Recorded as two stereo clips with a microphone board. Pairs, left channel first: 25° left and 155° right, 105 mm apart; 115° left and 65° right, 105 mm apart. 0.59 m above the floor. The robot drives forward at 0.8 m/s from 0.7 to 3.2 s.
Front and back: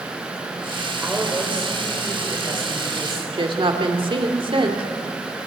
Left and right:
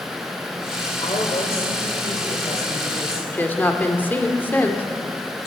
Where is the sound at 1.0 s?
120° left, 2.0 m; by 3.2 s 150° left, 3 m.